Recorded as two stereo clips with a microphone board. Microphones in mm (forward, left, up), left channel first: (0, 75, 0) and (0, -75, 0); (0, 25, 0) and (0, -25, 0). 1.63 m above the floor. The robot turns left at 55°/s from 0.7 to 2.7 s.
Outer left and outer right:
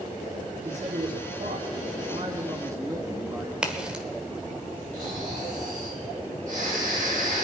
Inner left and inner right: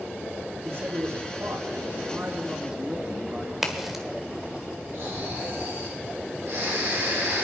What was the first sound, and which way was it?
A man speaking, 50° right.